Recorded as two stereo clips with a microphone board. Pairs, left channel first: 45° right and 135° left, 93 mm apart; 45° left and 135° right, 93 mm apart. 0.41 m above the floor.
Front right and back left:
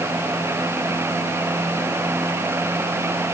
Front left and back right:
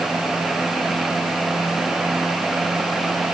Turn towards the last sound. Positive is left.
No sound to turn to.